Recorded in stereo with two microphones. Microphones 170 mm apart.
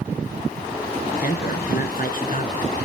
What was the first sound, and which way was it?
A man speaking, 60° left (ahead or behind).